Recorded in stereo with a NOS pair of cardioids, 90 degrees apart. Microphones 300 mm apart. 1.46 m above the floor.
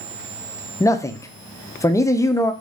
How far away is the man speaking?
About 0.6 m.